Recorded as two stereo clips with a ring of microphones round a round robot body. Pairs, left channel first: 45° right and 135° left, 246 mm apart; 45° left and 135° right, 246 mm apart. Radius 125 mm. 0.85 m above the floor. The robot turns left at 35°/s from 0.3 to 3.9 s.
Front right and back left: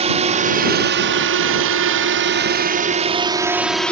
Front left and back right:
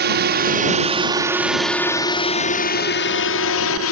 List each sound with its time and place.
0.0 s a drone: 170° right; by 3.9 s 40° left